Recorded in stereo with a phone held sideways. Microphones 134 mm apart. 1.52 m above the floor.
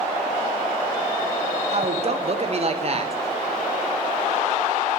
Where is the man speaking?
45° right (ahead or behind), 0.8 m.